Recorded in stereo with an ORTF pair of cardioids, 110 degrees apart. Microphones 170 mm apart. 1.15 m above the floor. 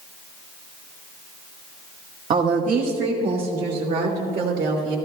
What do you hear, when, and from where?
2.3 s a woman speaking: 55° right, 1.4 m; by 5.0 s 65° right, 3 m